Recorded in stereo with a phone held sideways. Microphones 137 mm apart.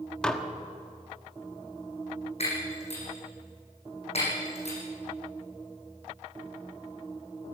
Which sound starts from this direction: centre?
Dishes clattering, at 0.2 s.